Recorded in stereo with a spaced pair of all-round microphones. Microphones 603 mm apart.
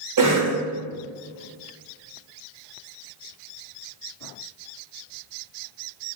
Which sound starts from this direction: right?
A cough, at 0.2 s.